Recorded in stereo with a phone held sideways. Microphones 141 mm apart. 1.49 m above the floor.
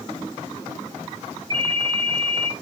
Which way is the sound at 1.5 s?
35° right (ahead or behind).